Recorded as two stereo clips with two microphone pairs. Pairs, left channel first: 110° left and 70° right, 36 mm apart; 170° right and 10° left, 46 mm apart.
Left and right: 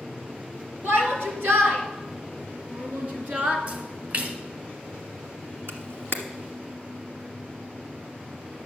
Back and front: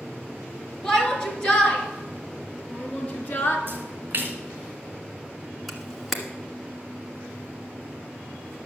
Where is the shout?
90° right, 3.5 m; by 3.6 s 120° right, 3 m.